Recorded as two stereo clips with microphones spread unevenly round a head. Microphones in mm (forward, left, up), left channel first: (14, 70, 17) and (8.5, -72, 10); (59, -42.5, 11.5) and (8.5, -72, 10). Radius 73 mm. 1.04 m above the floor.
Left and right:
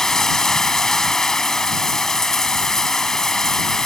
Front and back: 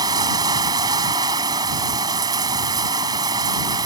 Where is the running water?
175° left.